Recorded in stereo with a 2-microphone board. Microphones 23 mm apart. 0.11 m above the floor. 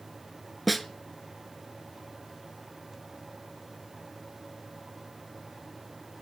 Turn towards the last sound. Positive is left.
turn(degrees=0)  # may be behind; listen again after turning